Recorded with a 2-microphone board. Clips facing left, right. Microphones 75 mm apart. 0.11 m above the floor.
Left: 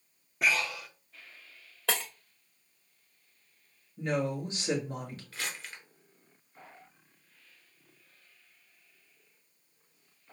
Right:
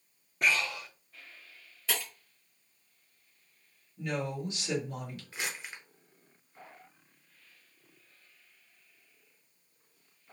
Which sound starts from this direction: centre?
Breathing, at 0.4 s.